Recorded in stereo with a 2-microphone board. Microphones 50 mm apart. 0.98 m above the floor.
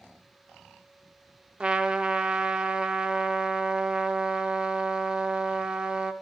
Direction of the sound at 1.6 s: 20° right (ahead or behind).